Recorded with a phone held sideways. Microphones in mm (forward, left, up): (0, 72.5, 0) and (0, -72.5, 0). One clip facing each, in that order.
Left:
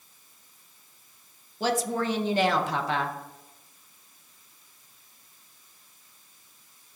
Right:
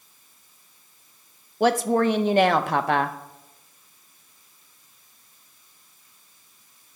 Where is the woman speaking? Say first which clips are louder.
Right 7 dB; 60° right (ahead or behind), 0.6 m.